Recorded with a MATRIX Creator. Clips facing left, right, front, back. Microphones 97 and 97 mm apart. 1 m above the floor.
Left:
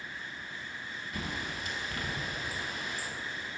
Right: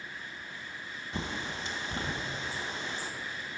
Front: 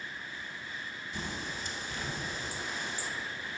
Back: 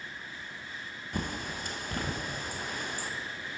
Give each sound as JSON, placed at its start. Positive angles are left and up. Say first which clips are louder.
{"t": 1.1, "sound": "a bird", "louder": "right 2 dB, back 4 dB", "azimuth_deg": -150, "distance_m": 0.5}